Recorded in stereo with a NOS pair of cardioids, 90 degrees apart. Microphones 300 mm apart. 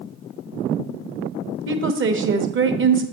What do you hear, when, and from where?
1.7 s a woman speaking: 40° right, 1.1 m